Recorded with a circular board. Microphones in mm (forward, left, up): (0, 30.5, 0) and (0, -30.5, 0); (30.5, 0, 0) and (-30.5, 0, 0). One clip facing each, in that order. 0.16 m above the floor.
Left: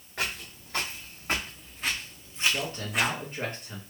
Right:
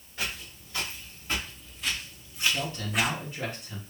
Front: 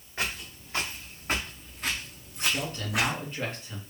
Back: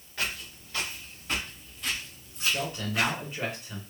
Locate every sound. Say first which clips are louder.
0.2 s footsteps: left 2 dB, front 1 dB; 65° left, 1.6 m; by 3.1 s 5° right, 0.6 m
2.4 s a man speaking: left 1 dB, even; 105° left, 2.0 m